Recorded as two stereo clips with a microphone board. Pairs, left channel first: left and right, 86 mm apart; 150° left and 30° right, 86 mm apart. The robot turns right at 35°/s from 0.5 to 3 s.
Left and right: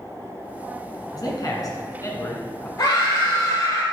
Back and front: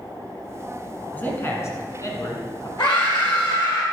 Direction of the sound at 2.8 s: 130° left.